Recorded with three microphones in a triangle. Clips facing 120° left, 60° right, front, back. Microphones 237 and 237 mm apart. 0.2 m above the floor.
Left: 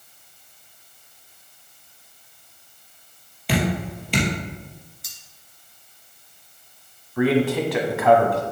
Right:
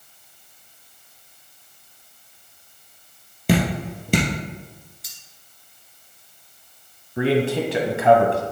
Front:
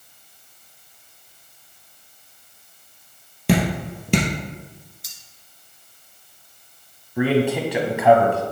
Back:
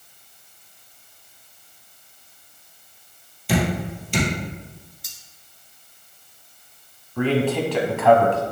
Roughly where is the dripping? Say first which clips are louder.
Right 2 dB, front 2 dB; ahead.